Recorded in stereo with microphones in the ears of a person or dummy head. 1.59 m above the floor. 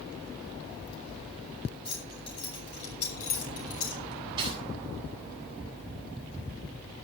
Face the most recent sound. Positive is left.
turn(degrees=-30)  # may be behind; listen again after turning